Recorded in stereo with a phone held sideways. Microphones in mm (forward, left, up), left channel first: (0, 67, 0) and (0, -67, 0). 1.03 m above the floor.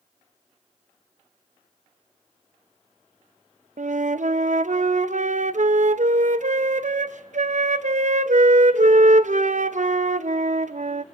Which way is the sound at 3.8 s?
65° right (ahead or behind).